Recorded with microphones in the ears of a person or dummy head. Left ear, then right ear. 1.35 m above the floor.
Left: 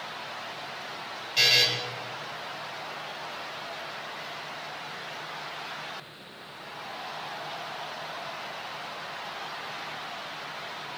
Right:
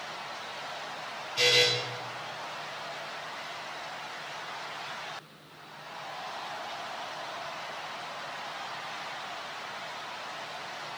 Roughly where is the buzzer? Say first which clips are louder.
Left 2 dB; left.